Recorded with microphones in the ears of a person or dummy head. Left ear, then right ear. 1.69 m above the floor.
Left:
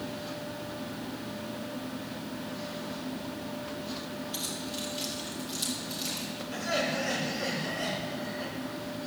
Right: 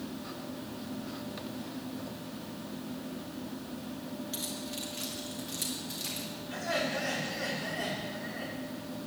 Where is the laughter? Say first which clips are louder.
Left 2 dB; 65° right (ahead or behind), 6 m.